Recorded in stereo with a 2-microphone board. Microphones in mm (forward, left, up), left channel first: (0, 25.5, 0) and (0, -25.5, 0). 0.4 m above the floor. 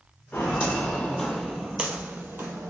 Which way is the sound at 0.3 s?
30° left (ahead or behind).